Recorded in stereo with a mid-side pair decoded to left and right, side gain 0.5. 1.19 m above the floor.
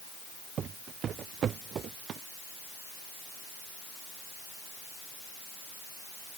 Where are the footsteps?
55° right.